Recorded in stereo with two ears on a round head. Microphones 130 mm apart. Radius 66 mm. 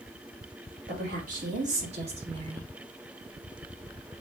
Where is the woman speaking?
70° right (ahead or behind), 2 m; by 2.7 s 30° right (ahead or behind), 1.5 m.